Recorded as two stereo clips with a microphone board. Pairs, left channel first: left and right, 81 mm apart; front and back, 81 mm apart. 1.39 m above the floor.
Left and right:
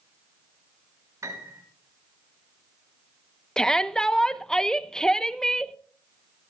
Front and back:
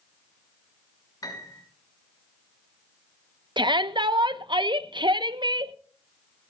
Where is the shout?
170° left, 0.9 m.